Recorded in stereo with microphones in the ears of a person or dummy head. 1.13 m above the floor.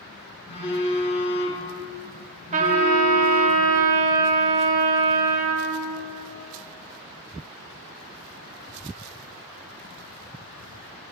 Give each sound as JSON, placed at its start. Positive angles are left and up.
{"t": 0.5, "sound": "a phone buzzing", "side_deg": 30, "distance_m": 2.0}
{"t": 2.5, "sound": "a trumpet", "side_deg": -45, "distance_m": 1.2}